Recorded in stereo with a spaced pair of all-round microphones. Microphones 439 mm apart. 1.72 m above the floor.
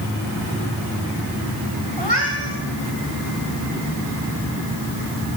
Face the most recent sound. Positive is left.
turn(degrees=-75)  # may be behind; listen again after turning